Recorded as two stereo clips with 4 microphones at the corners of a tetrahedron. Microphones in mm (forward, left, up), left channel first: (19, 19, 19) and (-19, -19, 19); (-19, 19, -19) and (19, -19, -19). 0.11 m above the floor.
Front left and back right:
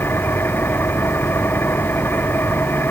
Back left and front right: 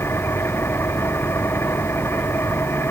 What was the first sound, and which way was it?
An engine running, 90° left.